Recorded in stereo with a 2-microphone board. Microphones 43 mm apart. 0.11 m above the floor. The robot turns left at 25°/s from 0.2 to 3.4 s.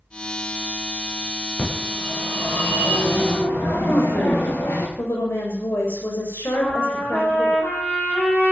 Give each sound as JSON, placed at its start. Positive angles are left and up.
{"t": 1.6, "sound": "a phone ringing", "azimuth_deg": 155, "distance_m": 10.0}
{"t": 3.9, "sound": "a woman speaking", "side_deg": 75, "distance_m": 7.5}
{"t": 6.5, "sound": "a trumpet", "side_deg": 40, "distance_m": 4.5}